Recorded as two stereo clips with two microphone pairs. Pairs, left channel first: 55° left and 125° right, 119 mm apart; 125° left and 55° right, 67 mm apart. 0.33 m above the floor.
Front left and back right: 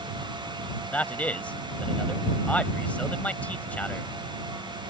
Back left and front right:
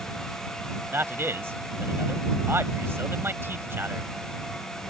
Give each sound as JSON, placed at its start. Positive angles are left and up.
{"t": 0.9, "sound": "a man speaking", "azimuth_deg": -20}